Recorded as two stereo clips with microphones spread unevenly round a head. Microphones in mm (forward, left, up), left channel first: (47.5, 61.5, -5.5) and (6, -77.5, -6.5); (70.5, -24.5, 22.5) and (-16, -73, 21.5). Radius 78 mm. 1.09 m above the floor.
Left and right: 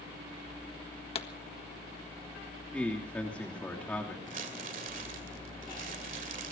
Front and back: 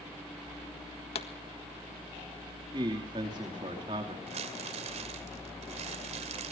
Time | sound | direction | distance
1.1 | a pop | 25° left | 1.6 m
2.7 | a man speaking | 155° left | 3 m
4.3 | crumpling | 150° right | 2.5 m